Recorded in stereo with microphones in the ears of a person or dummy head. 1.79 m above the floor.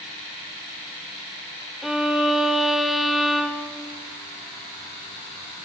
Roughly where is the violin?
Centre.